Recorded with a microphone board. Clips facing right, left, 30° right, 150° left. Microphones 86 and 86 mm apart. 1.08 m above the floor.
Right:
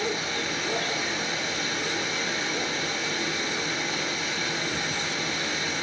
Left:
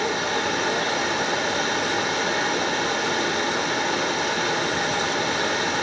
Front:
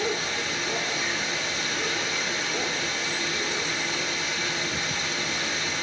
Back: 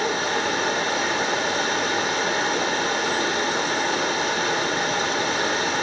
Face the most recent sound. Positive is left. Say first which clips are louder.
# left 6 dB, back 6 dB
turn(degrees=115)